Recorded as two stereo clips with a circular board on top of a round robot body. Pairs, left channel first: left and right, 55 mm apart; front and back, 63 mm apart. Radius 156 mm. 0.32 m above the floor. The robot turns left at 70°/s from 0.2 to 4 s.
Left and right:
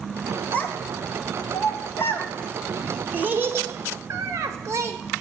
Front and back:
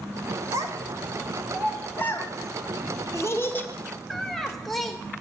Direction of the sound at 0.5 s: 155° left.